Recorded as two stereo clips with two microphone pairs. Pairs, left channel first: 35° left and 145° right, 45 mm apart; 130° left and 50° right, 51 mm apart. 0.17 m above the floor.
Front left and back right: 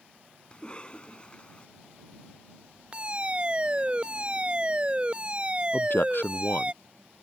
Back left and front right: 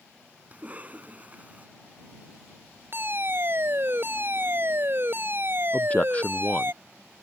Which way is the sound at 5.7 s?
65° left.